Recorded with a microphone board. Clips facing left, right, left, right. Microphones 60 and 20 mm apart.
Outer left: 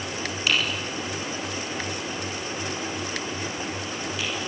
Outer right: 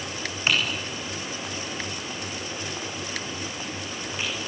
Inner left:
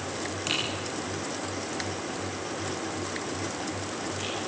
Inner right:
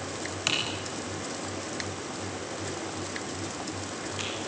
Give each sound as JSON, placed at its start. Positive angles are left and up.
{"t": 0.5, "sound": "typing on a keyboard", "side_deg": -35, "distance_m": 7.0}